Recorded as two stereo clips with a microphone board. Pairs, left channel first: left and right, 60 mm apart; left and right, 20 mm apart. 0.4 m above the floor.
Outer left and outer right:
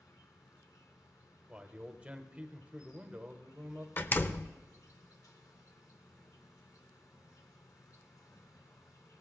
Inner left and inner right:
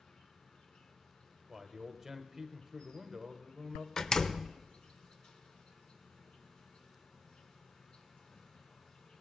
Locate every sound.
0.0 s an insect: 75° left (ahead or behind), 1.1 m
1.5 s a man speaking: 25° right (ahead or behind), 1.0 m
4.0 s a door slam: 35° left (ahead or behind), 0.5 m